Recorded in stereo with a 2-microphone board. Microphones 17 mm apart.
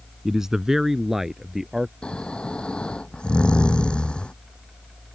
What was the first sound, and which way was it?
A man speaking, 30° right (ahead or behind).